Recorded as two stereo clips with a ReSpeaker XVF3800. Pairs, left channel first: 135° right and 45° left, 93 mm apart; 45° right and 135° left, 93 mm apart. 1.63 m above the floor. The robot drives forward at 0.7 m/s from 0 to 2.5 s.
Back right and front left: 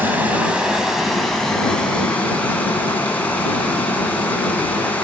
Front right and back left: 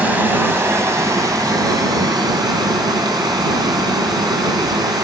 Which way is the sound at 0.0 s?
85° left.